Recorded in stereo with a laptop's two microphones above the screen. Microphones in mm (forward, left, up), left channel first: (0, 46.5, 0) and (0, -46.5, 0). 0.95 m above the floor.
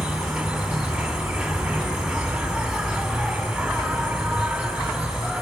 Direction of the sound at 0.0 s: 5° right (ahead or behind).